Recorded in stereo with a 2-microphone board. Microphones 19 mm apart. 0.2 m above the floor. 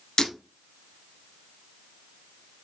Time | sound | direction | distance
0.2 | breaking glass | 45° left (ahead or behind) | 1.6 m